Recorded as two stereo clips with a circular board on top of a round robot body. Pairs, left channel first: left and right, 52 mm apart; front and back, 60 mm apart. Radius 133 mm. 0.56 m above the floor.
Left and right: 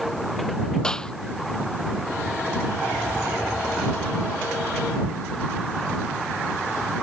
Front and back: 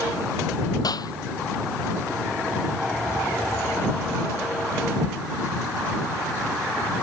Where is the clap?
15° left.